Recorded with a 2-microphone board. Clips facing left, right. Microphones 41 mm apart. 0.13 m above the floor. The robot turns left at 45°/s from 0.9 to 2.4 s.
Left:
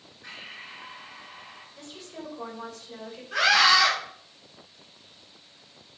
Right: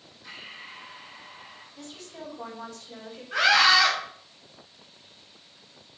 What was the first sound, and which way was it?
Breathing, 95° left.